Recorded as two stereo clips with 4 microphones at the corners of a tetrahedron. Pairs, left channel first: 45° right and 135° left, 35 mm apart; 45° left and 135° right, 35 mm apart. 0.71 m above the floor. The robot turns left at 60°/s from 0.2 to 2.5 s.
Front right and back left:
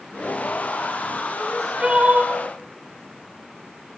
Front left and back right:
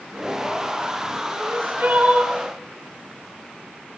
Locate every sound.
1.4 s crying: 135° right, 5 m; by 2.3 s 165° left, 5 m